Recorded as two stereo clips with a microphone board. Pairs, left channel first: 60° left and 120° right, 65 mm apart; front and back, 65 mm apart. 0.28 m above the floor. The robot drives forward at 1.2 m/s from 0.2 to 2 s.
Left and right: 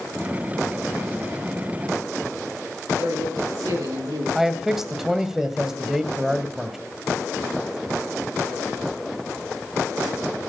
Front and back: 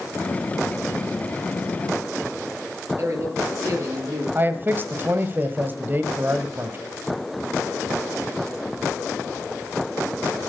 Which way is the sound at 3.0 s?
135° right.